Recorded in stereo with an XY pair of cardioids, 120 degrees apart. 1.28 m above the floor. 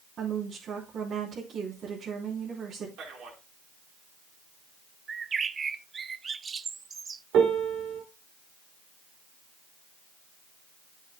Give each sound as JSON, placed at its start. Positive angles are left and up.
{"t": 0.2, "sound": "a woman speaking", "azimuth_deg": -55, "distance_m": 3.5}
{"t": 3.0, "sound": "a man speaking", "azimuth_deg": -70, "distance_m": 4.5}
{"t": 5.1, "sound": "a bird", "azimuth_deg": -30, "distance_m": 0.5}
{"t": 7.3, "sound": "a piano", "azimuth_deg": -65, "distance_m": 2.5}